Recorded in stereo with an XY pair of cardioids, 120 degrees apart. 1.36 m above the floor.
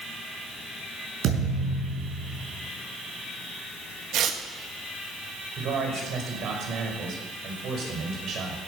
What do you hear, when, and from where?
1.2 s a thud: 70° right, 5 m
4.1 s tearing paper: 60° right, 1.6 m
5.6 s a man speaking: 60° right, 5.5 m